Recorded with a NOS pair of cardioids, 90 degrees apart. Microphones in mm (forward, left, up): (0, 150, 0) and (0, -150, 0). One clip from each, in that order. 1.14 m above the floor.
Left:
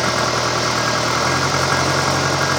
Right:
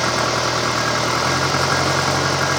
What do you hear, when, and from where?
0.0 s an engine running: 10° left